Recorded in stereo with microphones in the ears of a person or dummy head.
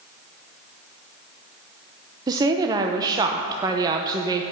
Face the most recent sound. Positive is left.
turn(degrees=-20)  # may be behind; listen again after turning